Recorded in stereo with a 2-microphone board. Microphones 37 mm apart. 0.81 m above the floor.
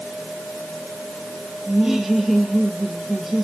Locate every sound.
1.7 s laughter: 10° right (ahead or behind), 2 m